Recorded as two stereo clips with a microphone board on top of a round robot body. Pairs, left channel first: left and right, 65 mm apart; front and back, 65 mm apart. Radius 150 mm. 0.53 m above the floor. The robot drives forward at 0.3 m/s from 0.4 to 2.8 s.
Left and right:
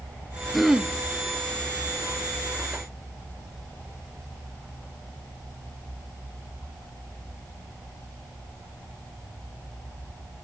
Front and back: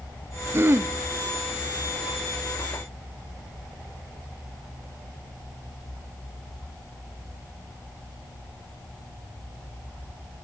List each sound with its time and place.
0.5 s throat clearing: 175° right, 1.1 m